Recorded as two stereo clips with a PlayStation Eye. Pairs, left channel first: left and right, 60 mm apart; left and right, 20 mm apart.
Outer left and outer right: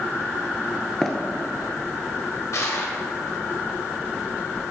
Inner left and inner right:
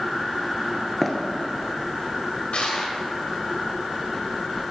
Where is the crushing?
60° left (ahead or behind), 1.3 m.